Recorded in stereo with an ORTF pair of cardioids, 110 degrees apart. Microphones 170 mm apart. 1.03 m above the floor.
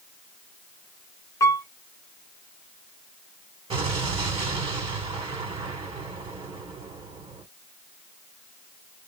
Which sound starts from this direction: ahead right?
An explosion, at 3.7 s.